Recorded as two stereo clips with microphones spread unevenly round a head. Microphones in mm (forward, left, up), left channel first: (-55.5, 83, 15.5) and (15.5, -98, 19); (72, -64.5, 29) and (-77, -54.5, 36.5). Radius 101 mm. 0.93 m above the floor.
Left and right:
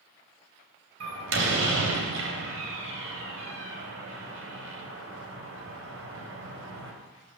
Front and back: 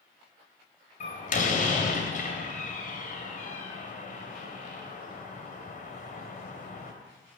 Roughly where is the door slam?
Ahead right.